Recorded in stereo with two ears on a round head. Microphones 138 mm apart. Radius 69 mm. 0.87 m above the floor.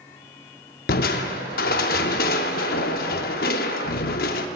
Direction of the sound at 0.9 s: 65° left (ahead or behind).